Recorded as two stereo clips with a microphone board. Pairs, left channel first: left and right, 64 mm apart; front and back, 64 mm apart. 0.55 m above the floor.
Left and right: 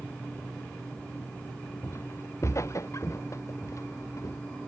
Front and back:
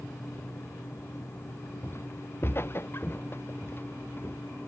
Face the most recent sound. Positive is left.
turn(degrees=55)